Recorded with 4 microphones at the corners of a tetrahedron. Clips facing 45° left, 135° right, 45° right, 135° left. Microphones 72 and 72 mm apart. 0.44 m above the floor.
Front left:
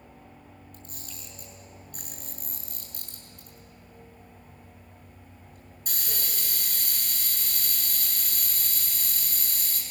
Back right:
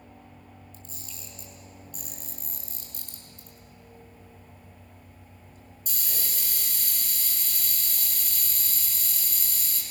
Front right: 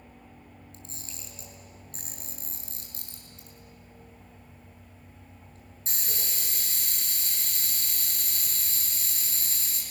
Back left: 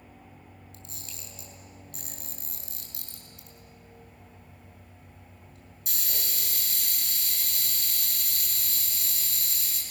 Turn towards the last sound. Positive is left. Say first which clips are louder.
# front left 1 dB, front right 1 dB
turn(degrees=10)